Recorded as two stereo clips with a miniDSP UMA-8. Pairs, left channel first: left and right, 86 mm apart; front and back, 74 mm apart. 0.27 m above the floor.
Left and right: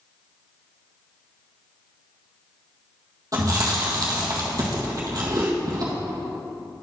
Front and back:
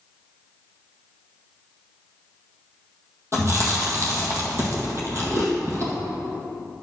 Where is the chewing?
135° right, 1.7 m.